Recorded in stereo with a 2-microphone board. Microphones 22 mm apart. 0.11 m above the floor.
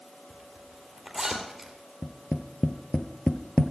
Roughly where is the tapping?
Left.